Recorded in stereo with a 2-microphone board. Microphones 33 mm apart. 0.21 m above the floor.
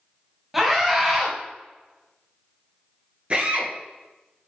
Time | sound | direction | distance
0.5 | a scream | 5° right (ahead or behind) | 3.5 m
3.3 | a drill | 40° right (ahead or behind) | 3 m